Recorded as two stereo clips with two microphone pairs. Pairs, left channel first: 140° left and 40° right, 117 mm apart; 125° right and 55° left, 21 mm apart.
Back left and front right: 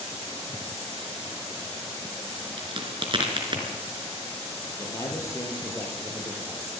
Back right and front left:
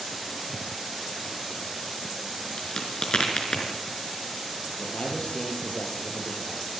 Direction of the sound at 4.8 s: 155° right.